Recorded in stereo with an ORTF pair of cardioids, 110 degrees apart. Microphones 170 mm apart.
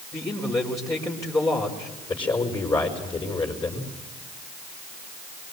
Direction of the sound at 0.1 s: 20° left.